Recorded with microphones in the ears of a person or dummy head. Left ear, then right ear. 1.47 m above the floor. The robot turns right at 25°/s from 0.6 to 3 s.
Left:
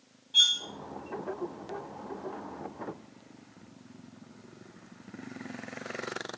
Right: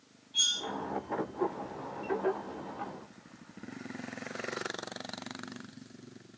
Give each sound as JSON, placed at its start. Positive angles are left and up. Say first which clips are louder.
{"t": 0.3, "sound": "cutlery clinking", "louder": "left 7 dB", "side_deg": 20, "distance_m": 0.7}